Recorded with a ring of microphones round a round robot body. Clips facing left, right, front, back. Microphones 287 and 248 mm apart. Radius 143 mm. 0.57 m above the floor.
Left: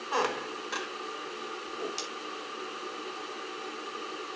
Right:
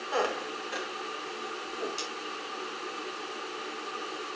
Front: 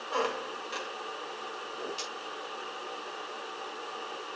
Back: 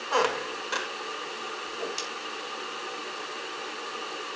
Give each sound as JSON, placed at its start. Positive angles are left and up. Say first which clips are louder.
{"t": 0.1, "sound": "a squeak", "louder": "right 1 dB, back 5 dB", "azimuth_deg": 160, "distance_m": 0.9}
{"t": 1.7, "sound": "a whoosh", "louder": "right 1 dB, back 4 dB", "azimuth_deg": 165, "distance_m": 3.0}